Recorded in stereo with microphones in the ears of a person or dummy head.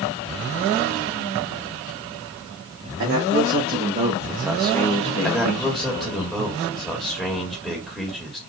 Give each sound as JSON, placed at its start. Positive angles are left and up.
{"t": 3.0, "sound": "a man speaking", "side_deg": -60, "distance_m": 1.7}
{"t": 5.2, "sound": "a man speaking", "side_deg": 5, "distance_m": 1.5}